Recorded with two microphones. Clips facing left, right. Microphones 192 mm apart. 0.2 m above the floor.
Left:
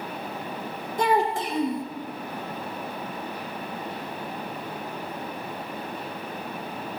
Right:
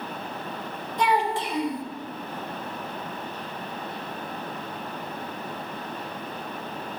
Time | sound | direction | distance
1.0 | a child speaking | 45° left (ahead or behind) | 0.9 m